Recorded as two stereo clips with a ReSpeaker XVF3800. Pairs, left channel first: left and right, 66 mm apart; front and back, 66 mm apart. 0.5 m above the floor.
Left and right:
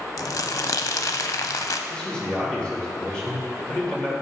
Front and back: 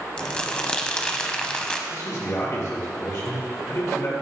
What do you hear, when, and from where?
0.2 s crumpling: 75° left, 0.5 m
1.9 s a man speaking: 15° left, 2 m